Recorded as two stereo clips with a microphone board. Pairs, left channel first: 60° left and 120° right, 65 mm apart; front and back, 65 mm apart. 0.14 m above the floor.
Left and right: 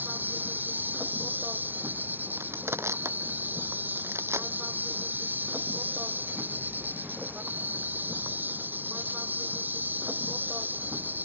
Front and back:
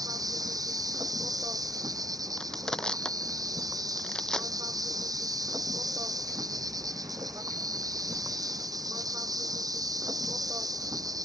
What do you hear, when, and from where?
0.0 s an insect: straight behind
2.4 s crushing: 80° right